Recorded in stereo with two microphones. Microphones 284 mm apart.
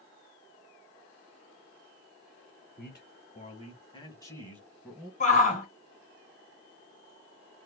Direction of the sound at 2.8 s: 35° left (ahead or behind).